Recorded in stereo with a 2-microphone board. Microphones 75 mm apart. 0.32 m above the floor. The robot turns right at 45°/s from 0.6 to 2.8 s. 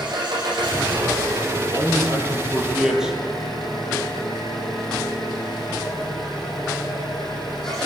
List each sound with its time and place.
0.0 s an engine running: 95° right, 9.5 m; by 7.9 s 5° left, 9.5 m
1.6 s a man speaking: 60° right, 8.5 m; by 3.2 s 5° right, 8.5 m